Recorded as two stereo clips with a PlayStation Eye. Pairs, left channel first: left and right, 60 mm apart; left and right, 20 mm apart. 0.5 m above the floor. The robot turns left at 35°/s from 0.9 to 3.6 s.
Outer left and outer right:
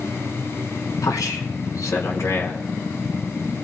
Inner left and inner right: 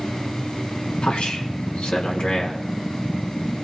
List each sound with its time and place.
1.0 s a man speaking: 100° left, 4 m; by 2.6 s 40° left, 4 m